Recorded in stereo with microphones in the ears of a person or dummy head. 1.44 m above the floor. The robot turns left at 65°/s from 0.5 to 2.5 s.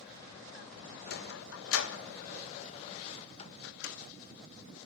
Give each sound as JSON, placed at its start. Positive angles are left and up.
{"t": 1.1, "sound": "a sliding door", "side_deg": 50, "distance_m": 1.4}
{"t": 3.6, "sound": "a microwave", "side_deg": 65, "distance_m": 1.5}